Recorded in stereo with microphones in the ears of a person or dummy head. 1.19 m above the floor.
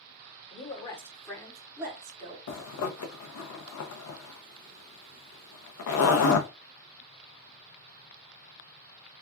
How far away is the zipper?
About 0.6 m.